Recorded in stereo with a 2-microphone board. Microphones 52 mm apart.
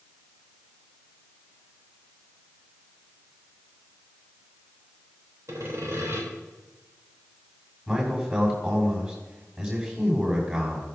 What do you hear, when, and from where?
5.5 s sawing: 70° right (ahead or behind), 3 m
7.9 s a man speaking: 25° right (ahead or behind), 6.5 m